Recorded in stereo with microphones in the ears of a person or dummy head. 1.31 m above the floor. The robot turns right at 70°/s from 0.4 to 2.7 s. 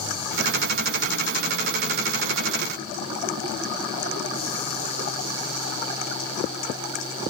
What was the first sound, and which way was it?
Only background noise.